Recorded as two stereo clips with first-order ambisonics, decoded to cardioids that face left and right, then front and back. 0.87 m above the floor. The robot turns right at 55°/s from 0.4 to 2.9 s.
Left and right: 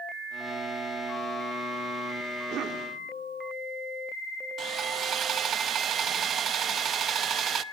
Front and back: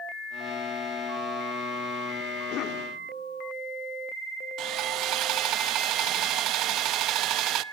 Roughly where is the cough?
Ahead right.